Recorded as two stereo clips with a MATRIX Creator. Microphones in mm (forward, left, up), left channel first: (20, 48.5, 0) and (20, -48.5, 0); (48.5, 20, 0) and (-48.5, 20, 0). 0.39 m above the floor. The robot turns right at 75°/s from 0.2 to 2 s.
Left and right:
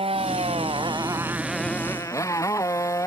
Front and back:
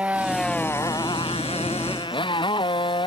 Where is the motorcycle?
105° right; by 3.1 s 30° left.